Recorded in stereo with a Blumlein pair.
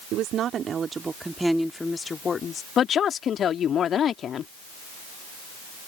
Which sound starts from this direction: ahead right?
A woman speaking, at 0.1 s.